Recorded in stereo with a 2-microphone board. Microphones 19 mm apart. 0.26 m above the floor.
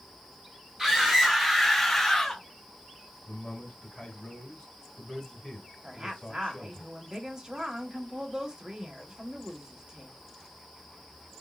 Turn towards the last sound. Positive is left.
turn(degrees=-40)  # may be behind; listen again after turning